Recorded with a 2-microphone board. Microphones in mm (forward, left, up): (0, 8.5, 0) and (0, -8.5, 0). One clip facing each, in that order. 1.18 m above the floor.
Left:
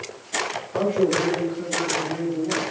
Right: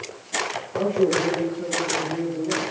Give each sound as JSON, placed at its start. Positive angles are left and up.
{"t": 0.7, "sound": "a man speaking", "side_deg": 75, "distance_m": 2.5}